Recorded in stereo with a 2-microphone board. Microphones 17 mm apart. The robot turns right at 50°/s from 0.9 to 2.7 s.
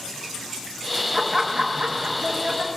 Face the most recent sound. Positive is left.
turn(degrees=-90)